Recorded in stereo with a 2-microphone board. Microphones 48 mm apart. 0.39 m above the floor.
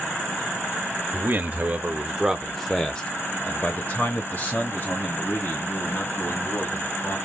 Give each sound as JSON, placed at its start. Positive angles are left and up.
{"t": 1.1, "sound": "a man speaking", "side_deg": -45, "distance_m": 1.1}